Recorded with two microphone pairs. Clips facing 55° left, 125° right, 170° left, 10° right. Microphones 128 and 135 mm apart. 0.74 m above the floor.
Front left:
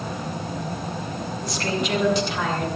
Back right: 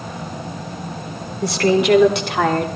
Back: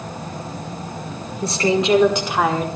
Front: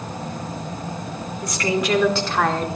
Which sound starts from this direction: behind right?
A woman speaking, at 1.4 s.